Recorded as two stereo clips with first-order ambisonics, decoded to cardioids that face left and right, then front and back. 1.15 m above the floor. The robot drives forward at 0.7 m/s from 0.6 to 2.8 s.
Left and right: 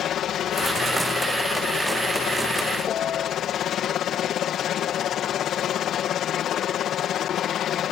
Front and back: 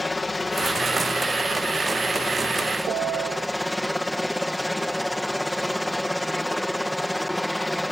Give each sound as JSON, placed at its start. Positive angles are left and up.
{"t": 0.0, "sound": "a helicopter", "azimuth_deg": 75}
{"t": 2.9, "sound": "a piano", "azimuth_deg": 140}